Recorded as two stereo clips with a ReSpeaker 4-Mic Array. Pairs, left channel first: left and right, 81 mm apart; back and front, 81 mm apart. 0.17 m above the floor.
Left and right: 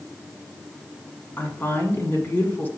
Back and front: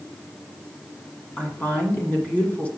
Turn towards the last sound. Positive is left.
turn(degrees=130)